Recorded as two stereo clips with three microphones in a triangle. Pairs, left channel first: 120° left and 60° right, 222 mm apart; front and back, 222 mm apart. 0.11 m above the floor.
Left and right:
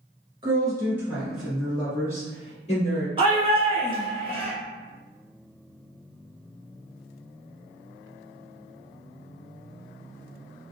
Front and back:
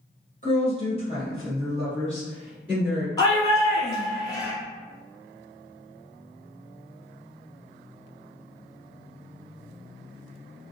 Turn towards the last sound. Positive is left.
turn(degrees=-50)